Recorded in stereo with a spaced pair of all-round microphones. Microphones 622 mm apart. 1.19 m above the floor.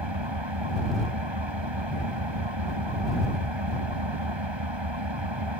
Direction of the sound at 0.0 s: 45° right (ahead or behind).